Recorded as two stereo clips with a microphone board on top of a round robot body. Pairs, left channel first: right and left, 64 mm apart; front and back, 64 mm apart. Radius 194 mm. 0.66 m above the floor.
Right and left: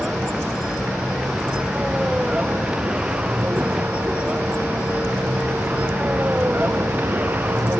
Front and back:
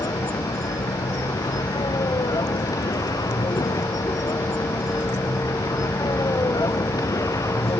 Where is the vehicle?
10° left; by 7.8 s 30° left.